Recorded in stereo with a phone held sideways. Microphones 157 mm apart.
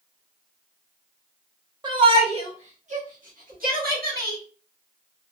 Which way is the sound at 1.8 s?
30° right (ahead or behind).